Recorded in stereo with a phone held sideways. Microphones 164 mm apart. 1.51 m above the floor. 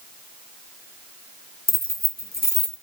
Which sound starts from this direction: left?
Keys jangling, at 1.7 s.